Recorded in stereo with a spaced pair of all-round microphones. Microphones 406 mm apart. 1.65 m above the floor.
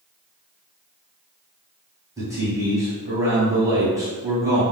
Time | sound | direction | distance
2.2 | a man speaking | 5° right (ahead or behind) | 1.5 m